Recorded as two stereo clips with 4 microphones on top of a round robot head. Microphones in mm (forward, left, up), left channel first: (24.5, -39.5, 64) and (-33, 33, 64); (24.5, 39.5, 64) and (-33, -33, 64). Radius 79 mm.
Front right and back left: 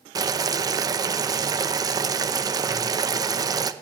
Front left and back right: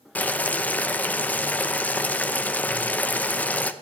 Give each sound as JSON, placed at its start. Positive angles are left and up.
{"t": 0.1, "sound": "boiling", "azimuth_deg": 115, "distance_m": 0.8}